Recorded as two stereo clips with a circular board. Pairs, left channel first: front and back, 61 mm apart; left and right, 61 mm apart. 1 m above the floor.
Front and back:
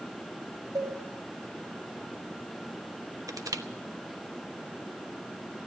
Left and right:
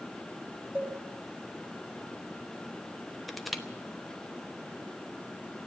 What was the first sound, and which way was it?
A cowbell, 155° right.